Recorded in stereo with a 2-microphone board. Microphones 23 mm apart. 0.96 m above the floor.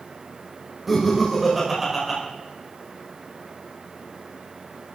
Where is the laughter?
5° right (ahead or behind), 6 m.